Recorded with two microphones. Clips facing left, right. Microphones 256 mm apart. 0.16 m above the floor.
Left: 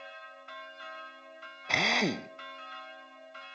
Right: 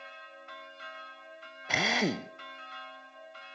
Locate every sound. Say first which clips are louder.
1.7 s a drill: right 1 dB; 5° right (ahead or behind), 0.7 m